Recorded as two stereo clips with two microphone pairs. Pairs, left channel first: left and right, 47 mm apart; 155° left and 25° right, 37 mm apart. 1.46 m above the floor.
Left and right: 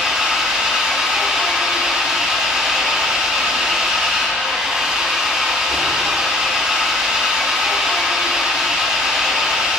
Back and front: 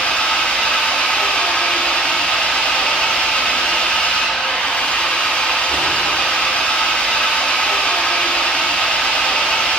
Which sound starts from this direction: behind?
An engine running, at 0.0 s.